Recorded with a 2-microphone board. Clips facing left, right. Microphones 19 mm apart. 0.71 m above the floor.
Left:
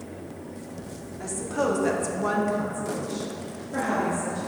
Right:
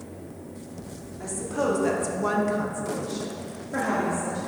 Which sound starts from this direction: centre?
A woman speaking, at 1.2 s.